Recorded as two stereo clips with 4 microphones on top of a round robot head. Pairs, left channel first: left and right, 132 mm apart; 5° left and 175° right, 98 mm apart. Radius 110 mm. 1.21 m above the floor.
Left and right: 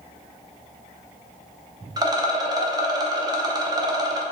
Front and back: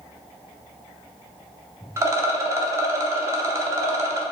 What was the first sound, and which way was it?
A rattle, 130° right.